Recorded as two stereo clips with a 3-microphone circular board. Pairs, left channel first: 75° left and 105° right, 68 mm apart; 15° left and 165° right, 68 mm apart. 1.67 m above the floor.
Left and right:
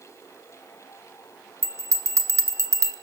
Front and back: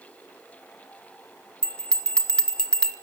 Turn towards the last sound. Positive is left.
turn(degrees=-60)